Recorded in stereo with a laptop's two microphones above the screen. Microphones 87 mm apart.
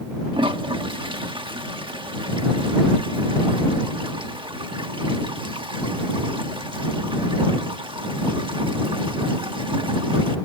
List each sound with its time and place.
0.3 s a toilet flushing: 75° right (ahead or behind)